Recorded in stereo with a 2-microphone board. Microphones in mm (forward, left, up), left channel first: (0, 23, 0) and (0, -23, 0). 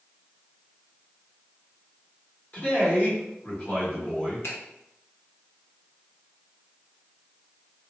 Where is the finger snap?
80° left, 0.8 m.